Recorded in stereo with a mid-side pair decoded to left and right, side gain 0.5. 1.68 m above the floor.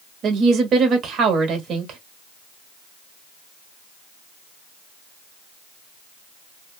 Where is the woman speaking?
55° right, 1.3 m.